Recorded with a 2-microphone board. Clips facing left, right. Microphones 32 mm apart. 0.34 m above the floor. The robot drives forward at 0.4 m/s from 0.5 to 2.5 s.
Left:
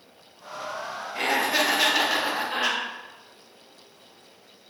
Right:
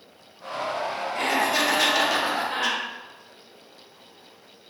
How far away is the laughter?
About 0.9 m.